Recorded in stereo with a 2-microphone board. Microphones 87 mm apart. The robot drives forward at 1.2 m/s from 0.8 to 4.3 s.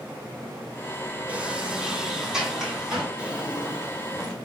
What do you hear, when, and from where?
1.3 s a sliding door: 15° right (ahead or behind), 1.0 m; by 3.1 s 5° right (ahead or behind), 3 m
3.2 s a drawer: 15° right (ahead or behind), 2.5 m; by 4.5 s 10° right (ahead or behind), 3.5 m